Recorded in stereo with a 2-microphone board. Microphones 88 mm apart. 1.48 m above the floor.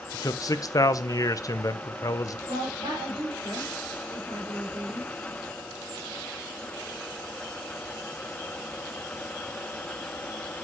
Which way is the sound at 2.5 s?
70° right (ahead or behind).